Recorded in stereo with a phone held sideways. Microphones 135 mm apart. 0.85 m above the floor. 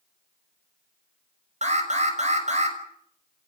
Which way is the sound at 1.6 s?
55° right (ahead or behind).